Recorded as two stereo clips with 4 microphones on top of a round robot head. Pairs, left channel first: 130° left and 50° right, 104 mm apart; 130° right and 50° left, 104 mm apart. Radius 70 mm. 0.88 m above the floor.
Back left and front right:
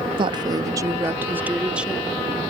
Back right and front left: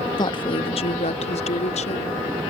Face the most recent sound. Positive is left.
turn(degrees=-135)